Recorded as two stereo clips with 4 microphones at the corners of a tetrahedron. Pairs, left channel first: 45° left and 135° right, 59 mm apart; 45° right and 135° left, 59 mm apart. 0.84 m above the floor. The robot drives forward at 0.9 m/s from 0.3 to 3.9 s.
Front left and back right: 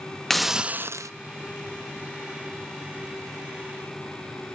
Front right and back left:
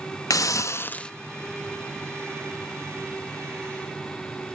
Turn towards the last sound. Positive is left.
turn(degrees=-170)